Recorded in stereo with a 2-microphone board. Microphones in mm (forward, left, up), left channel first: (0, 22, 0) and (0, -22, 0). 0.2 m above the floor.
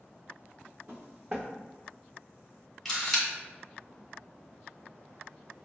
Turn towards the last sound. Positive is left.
turn(degrees=5)  # may be behind; listen again after turning